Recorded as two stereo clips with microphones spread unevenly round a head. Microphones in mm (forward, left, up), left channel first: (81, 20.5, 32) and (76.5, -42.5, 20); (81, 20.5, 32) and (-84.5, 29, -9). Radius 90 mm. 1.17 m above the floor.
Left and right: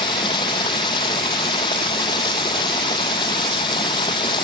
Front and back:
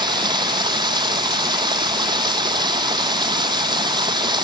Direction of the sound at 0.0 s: 110° left.